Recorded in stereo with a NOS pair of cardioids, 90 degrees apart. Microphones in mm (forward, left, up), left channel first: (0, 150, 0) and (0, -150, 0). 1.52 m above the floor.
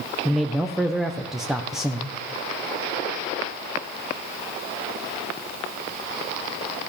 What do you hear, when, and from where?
0.2 s a man speaking: straight ahead, 1.0 m